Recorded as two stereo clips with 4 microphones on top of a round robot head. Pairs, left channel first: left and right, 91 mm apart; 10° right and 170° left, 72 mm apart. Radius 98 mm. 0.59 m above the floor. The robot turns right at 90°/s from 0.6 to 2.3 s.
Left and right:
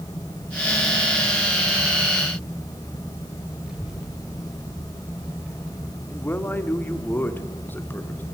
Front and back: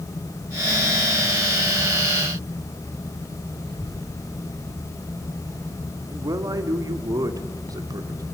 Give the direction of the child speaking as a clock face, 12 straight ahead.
6 o'clock.